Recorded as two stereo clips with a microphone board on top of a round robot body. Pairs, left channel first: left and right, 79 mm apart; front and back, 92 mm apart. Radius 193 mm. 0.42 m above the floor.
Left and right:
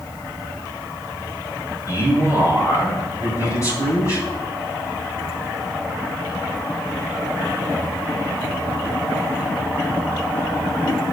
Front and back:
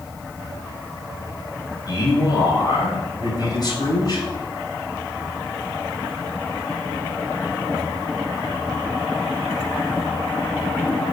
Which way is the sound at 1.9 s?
45° left.